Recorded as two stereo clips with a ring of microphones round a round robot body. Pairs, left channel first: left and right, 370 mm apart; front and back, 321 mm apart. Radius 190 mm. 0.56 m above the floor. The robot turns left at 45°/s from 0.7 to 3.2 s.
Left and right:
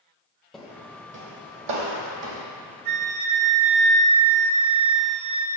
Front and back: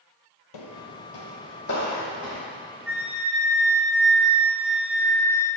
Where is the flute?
95° right, 1.1 m; by 5.5 s 110° right, 1.1 m.